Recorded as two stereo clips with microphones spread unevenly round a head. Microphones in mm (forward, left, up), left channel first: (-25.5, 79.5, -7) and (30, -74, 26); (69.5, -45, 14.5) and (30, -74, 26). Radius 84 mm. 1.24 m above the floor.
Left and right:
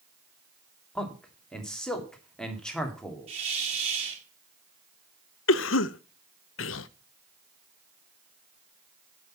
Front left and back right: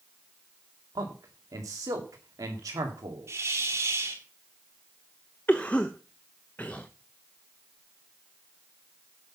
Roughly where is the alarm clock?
I don't hear an alarm clock.